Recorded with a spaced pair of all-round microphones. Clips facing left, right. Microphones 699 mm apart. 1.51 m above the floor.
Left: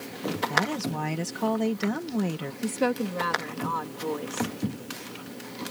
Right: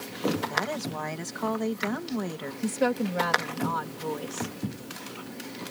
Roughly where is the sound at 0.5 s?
Left.